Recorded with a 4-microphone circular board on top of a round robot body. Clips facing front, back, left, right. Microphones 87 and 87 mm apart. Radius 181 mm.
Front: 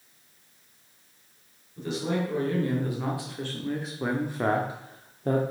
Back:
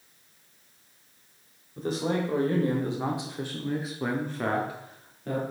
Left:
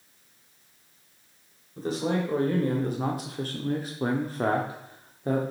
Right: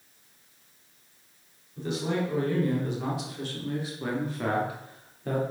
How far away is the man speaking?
About 1.7 m.